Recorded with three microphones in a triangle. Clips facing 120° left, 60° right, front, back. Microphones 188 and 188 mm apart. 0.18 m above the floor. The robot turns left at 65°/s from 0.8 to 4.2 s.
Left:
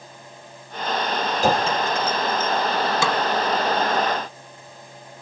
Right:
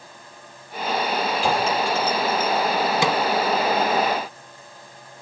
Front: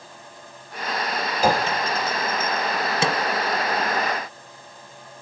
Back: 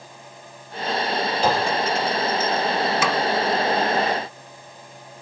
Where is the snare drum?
10° right, 1.5 m; by 3.2 s 20° right, 1.5 m.